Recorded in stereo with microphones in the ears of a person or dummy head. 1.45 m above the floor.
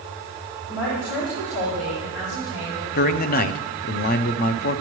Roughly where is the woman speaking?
Left.